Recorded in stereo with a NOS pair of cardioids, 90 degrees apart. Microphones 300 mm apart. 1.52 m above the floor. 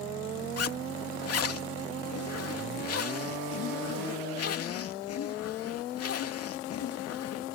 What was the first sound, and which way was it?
A zipper, 55° left.